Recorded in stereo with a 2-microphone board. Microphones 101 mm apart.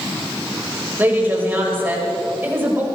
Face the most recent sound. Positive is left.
turn(degrees=-20)  # may be behind; listen again after turning